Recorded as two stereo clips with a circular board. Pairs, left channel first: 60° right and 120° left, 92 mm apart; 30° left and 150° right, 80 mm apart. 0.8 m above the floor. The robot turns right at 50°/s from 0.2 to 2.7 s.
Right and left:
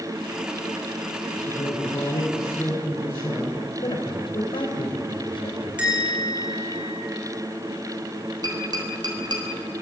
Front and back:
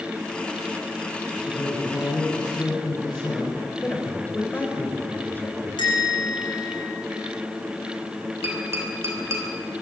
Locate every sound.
1.5 s a woman speaking: 55° right, 6.5 m; by 3.6 s 5° left, 6.5 m
3.8 s a man speaking: 35° right, 4 m
5.8 s a bell: 40° left, 7.5 m
8.4 s tapping: 155° left, 4 m